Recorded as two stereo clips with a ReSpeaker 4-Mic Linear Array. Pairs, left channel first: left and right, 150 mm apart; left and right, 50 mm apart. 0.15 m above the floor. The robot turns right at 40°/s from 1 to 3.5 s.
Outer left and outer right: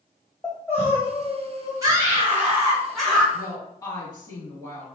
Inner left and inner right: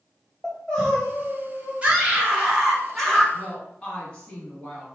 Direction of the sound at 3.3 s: 25° left (ahead or behind).